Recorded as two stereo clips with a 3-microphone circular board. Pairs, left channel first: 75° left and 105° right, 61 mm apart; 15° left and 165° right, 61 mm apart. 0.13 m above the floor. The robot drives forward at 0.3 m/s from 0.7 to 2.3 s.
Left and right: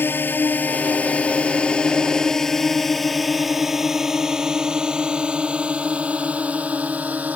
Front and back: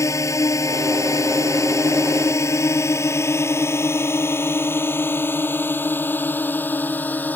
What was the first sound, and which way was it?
A drone, 30° left.